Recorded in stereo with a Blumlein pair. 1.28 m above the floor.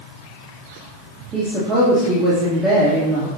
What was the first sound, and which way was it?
A woman speaking, 20° right.